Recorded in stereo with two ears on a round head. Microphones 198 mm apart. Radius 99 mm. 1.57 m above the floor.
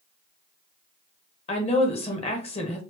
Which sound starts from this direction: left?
A woman speaking, at 1.5 s.